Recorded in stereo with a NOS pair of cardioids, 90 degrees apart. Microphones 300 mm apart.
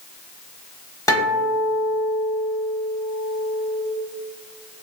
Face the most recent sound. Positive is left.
turn(degrees=10)